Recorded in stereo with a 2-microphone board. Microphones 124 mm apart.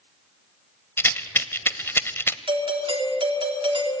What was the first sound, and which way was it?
A rattle, 20° left (ahead or behind).